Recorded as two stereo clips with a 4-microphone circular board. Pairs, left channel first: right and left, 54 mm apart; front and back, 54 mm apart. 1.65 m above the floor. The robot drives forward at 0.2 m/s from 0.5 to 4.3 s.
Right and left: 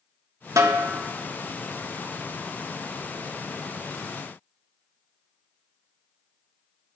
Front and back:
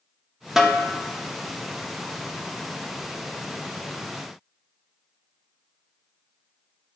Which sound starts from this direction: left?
A snare drum, at 0.6 s.